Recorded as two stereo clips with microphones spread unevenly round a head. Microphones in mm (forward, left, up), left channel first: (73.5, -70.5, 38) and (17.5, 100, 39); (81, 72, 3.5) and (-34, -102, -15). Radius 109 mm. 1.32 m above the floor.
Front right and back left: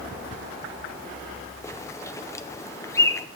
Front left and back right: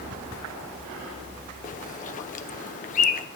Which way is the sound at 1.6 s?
Straight ahead.